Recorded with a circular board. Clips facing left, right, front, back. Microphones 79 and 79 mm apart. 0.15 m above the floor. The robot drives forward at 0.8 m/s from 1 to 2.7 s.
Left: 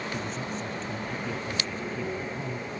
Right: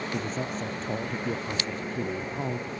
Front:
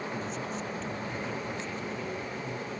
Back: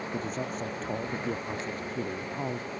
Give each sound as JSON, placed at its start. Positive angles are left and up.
{"t": 0.1, "sound": "a man speaking", "azimuth_deg": -135}